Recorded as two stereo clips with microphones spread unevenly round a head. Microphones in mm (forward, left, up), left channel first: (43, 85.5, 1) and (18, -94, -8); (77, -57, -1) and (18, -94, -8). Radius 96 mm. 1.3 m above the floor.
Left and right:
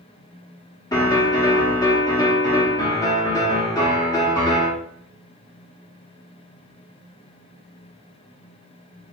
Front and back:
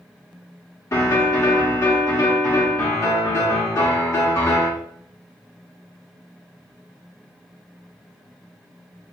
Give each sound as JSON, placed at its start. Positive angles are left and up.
{"t": 0.9, "sound": "a piano", "azimuth_deg": 20, "distance_m": 1.0}